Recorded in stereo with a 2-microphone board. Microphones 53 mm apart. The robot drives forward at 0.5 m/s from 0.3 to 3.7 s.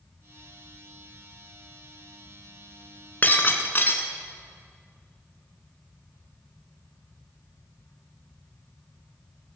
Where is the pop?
I don't hear a pop.